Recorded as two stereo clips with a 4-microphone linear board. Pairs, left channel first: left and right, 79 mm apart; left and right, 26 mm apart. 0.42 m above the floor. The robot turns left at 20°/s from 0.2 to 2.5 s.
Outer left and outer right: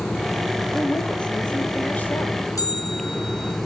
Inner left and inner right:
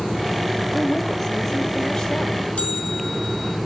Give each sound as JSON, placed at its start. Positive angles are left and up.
{"t": 0.7, "sound": "a woman speaking", "azimuth_deg": 170, "distance_m": 1.3}
{"t": 2.6, "sound": "a bell", "side_deg": 45, "distance_m": 2.5}